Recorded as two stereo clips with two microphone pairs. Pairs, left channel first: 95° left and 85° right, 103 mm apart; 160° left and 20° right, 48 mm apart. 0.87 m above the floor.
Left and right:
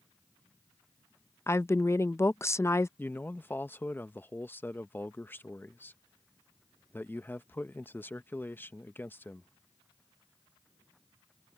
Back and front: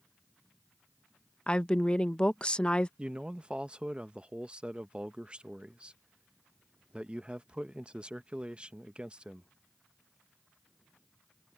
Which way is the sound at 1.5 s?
115° left.